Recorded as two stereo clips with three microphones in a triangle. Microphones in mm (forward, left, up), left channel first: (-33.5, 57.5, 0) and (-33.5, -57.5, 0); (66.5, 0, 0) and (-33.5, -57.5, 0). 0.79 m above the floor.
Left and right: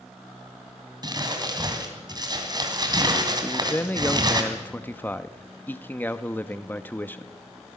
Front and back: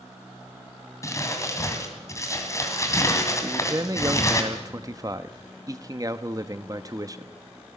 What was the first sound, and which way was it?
Crumpling, 35° right.